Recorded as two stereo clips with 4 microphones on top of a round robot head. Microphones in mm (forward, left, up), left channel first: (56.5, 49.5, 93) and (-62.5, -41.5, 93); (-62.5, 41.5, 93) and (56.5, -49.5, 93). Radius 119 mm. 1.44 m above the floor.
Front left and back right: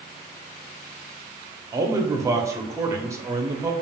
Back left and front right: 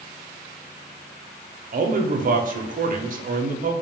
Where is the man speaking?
70° right, 0.5 m.